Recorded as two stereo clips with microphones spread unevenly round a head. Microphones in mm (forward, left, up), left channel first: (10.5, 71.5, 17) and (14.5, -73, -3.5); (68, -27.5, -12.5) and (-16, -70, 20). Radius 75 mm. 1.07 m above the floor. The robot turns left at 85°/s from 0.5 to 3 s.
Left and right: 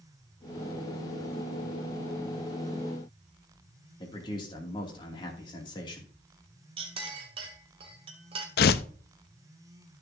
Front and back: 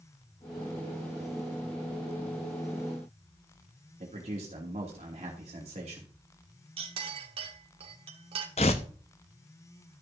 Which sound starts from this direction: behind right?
A clink, at 6.8 s.